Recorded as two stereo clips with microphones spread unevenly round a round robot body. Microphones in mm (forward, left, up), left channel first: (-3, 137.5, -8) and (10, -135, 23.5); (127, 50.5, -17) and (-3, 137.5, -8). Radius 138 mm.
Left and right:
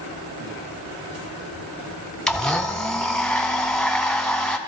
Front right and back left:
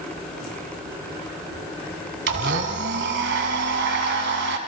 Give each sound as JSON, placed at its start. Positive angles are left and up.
{"t": 2.3, "sound": "a blender", "azimuth_deg": 180, "distance_m": 2.5}